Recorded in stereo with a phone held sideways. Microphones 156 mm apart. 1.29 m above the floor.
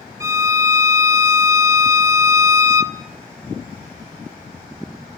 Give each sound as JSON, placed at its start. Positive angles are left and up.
{"t": 0.2, "sound": "a violin", "side_deg": -20, "distance_m": 1.5}